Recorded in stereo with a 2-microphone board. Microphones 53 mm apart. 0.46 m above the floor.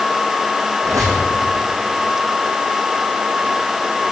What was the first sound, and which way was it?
A squeak, 85° right.